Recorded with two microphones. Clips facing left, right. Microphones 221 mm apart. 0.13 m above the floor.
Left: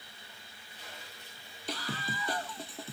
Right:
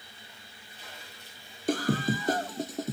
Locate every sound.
1.7 s a scream: 50° right (ahead or behind); by 2.9 s 45° right (ahead or behind)